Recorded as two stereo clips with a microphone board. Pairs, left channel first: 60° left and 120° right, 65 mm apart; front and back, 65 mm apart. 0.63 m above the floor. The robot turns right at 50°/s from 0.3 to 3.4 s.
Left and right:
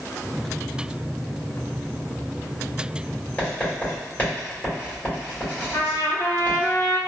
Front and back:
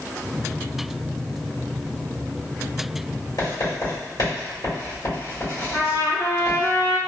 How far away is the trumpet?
About 1.9 m.